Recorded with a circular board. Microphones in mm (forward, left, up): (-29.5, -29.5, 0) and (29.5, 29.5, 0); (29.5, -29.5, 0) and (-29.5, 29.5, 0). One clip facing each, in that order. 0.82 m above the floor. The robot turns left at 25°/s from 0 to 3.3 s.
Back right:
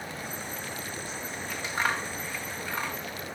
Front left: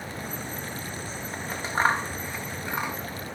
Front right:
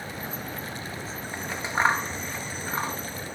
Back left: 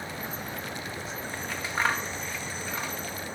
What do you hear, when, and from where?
1.3 s scissors: 15° left; by 3.0 s 25° right